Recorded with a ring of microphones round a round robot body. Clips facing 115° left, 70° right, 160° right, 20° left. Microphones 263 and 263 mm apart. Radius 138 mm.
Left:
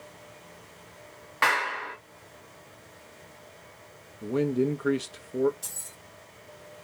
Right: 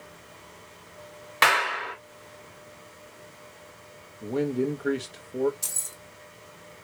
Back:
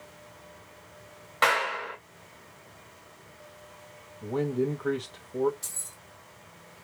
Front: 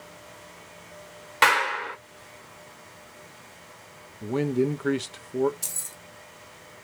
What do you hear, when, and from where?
1.4 s a clap: 25° right, 2.0 m
4.2 s a man speaking: 35° left, 0.7 m
5.6 s keys jangling: 15° right, 1.2 m